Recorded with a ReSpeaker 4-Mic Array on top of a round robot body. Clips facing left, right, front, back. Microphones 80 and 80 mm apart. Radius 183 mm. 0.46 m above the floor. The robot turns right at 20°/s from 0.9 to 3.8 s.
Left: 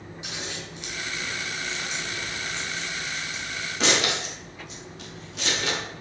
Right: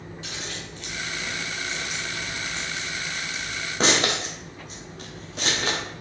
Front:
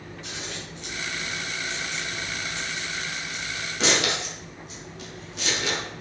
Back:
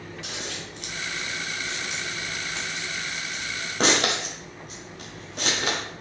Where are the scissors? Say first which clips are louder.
Left 1 dB, even; 165° left, 1.6 m; by 5.8 s 135° right, 1.6 m.